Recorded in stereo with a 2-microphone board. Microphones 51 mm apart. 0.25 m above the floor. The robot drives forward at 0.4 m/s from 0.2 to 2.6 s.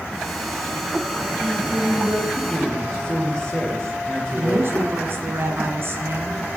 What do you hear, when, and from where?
1.4 s a man speaking: 15° left (ahead or behind), 7 m
4.3 s a woman speaking: 50° right (ahead or behind), 3 m